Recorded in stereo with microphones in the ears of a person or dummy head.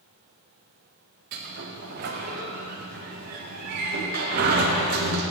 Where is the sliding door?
55° right (ahead or behind), 1.2 m.